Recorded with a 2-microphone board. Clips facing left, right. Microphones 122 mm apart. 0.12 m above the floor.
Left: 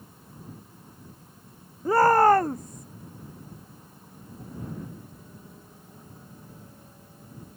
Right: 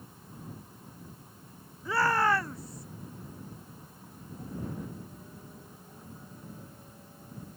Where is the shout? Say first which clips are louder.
Left 9 dB; 40° left (ahead or behind); by 2.9 s 45° left (ahead or behind).